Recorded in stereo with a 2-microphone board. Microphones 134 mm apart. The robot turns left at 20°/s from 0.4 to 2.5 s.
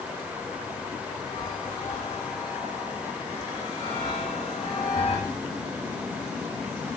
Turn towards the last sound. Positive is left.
turn(degrees=45)  # may be behind; listen again after turning